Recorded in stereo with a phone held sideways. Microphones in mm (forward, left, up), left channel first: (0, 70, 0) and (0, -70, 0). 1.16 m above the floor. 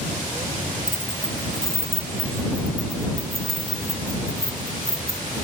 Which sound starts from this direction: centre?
Keys jangling, at 0.9 s.